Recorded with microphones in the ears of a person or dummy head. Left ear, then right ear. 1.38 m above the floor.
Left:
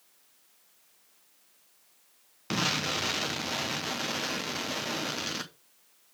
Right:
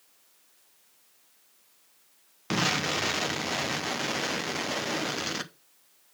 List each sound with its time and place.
2.5 s an explosion: 10° right (ahead or behind), 0.8 m